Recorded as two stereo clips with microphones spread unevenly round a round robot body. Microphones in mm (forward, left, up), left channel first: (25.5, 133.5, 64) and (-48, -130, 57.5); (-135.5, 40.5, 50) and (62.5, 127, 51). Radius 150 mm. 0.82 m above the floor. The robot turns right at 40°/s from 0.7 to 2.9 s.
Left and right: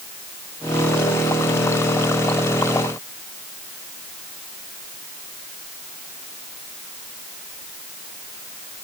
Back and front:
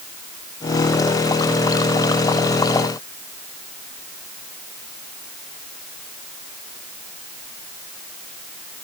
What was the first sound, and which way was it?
Only background noise.